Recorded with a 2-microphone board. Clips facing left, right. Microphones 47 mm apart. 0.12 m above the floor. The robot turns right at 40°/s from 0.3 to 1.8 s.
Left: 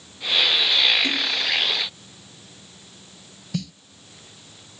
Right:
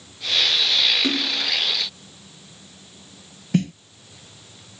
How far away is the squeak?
No squeak in this recording.